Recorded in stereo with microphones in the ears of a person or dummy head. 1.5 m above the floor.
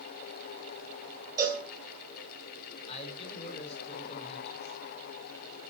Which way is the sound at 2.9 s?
35° left (ahead or behind).